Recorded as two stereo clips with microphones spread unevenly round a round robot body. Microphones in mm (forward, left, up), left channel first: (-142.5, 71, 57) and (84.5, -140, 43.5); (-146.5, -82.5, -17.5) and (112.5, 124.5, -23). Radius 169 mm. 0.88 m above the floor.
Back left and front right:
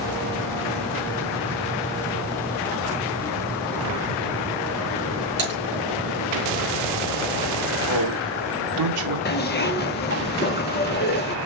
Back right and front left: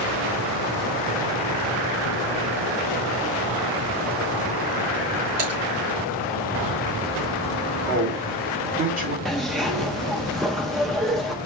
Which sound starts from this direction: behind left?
A zipper, at 9.2 s.